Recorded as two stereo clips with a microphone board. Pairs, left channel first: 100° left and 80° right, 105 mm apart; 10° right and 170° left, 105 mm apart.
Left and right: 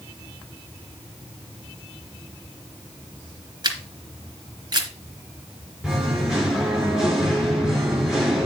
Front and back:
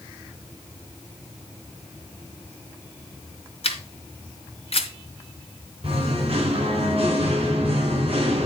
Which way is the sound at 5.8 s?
165° right.